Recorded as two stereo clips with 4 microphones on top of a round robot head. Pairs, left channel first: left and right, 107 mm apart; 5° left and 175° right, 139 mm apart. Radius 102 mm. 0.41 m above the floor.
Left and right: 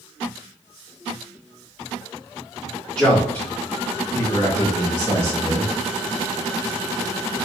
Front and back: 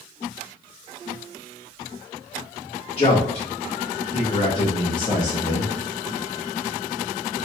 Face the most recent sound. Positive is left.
turn(degrees=60)